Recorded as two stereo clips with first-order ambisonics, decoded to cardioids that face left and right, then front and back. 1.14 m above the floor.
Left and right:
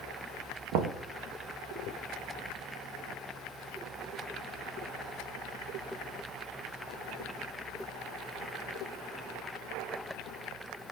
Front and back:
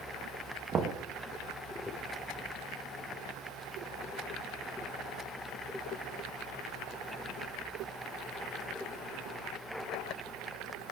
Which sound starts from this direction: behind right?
Knocking, at 0.7 s.